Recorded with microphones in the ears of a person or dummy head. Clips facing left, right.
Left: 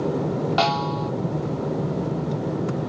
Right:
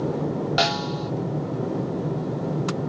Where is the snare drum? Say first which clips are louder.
Left 2 dB; 20° right (ahead or behind).